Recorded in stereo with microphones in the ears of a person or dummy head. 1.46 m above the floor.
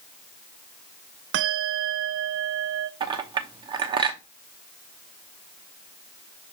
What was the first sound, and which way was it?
A bell, 60° right (ahead or behind).